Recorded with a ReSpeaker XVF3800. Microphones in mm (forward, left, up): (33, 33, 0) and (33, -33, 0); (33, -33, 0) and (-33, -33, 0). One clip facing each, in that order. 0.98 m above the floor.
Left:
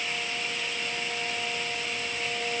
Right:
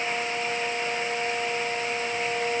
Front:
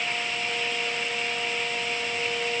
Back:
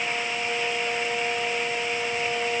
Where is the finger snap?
I don't hear a finger snap.